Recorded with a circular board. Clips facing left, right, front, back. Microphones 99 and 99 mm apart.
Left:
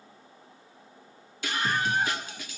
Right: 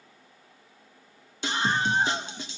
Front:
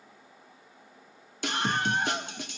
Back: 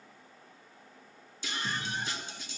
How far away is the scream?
About 1.8 m.